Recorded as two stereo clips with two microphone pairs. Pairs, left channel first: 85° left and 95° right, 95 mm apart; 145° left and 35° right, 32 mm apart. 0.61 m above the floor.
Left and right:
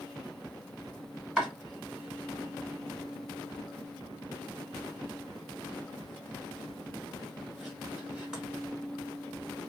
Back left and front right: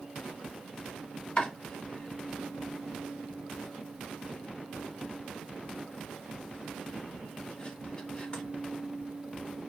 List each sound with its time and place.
1.4 s chopping: 175° right, 1.6 m